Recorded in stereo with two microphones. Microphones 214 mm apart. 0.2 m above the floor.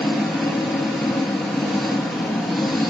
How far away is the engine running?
About 2.5 m.